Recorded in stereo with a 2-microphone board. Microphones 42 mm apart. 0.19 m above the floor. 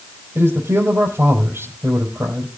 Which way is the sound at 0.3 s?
75° right (ahead or behind).